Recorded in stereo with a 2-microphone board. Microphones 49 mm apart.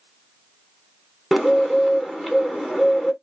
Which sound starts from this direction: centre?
A bird, at 1.3 s.